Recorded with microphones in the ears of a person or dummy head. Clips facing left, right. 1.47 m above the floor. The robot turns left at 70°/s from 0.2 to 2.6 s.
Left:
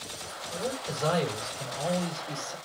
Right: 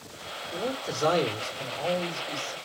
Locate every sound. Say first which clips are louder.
0.5 s a man speaking: right 2 dB; 85° right, 3 m; by 2.5 s 130° left, 3 m